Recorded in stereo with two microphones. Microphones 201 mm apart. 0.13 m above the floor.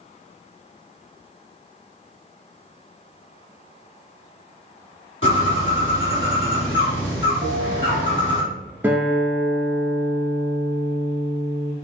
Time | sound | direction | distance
5.2 | a bird | 75° left (ahead or behind) | 2.0 m
7.4 | a bell | 40° right (ahead or behind) | 1.2 m
8.8 | a guitar | 10° right (ahead or behind) | 0.9 m